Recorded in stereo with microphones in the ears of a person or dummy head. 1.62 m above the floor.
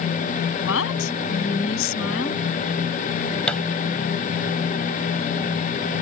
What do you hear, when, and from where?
0.6 s a woman speaking: 80° left
3.5 s a thud: 5° left (ahead or behind)